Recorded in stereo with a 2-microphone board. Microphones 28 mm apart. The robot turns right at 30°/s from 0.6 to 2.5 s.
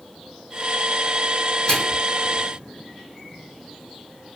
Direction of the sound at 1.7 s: 30° left (ahead or behind).